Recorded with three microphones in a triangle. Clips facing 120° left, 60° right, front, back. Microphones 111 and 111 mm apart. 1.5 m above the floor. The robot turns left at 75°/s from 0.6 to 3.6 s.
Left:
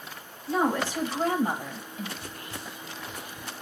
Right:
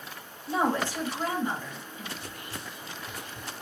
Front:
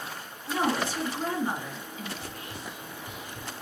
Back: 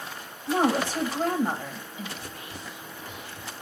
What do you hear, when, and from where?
0.5 s a woman speaking: 145° right, 1.9 m; by 2.1 s 105° left, 1.9 m
2.2 s whispering: 80° left, 2 m; by 3.5 s 25° right, 2 m